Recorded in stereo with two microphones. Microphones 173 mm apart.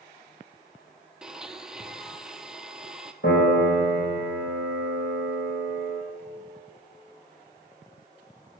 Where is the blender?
5° right (ahead or behind), 0.6 m.